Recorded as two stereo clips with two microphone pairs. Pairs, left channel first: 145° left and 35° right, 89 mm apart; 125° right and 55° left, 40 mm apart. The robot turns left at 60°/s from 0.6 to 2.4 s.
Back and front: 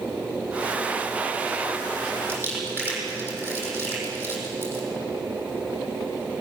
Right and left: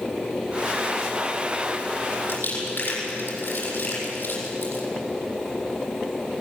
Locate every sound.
2.3 s crumpling: 140° right, 7.5 m; by 4.8 s 150° right, 7.5 m